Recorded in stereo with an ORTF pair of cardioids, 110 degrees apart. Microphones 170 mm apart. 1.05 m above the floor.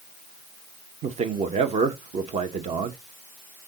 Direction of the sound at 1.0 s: 40° right.